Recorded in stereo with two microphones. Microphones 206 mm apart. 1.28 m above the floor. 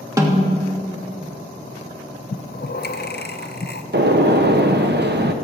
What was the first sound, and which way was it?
A snare drum, 15° right (ahead or behind).